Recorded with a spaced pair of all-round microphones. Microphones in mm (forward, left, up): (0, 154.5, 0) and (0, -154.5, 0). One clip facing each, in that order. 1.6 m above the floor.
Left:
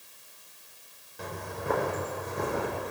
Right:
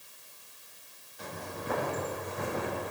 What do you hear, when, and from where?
1.2 s footsteps: 55° left (ahead or behind), 4.5 m; by 2.9 s 50° left (ahead or behind), 6 m